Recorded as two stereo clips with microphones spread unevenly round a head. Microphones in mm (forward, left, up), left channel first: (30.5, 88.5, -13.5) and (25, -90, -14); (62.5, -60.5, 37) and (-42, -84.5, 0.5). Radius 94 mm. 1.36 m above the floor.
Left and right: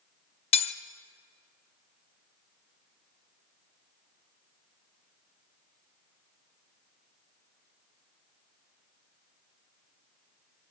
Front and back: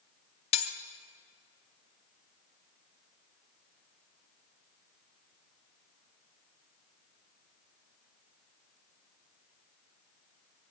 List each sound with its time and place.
0.5 s cutlery clinking: 30° left, 1.0 m